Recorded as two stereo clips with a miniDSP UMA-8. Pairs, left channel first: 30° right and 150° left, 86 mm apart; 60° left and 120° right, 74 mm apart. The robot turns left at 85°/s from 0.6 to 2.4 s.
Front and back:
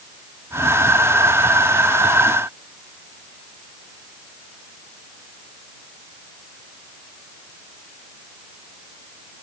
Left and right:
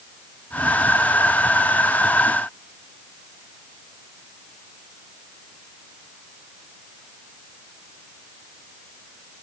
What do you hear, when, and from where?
Only background noise.